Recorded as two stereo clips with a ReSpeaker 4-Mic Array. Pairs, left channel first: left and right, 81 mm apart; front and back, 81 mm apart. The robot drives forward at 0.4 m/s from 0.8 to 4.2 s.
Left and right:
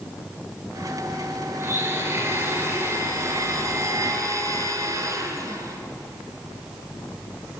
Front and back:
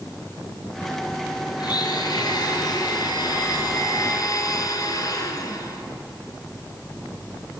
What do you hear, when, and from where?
1.6 s a blender: 30° right, 3.5 m; by 5.8 s 40° right, 2.5 m